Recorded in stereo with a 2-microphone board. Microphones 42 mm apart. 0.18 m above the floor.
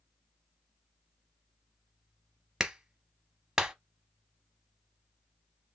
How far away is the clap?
About 0.8 m.